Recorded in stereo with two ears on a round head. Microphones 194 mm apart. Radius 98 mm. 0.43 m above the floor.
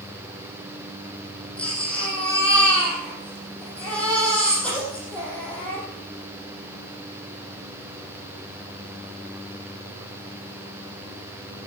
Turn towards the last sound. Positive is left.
turn(degrees=5)  # may be behind; listen again after turning